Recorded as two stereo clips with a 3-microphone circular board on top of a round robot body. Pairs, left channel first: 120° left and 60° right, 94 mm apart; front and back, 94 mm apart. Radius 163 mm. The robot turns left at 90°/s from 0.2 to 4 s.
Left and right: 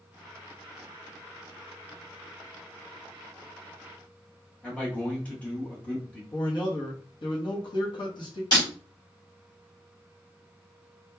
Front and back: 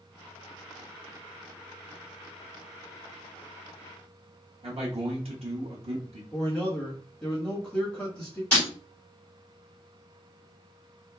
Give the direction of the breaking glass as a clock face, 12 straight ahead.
9 o'clock.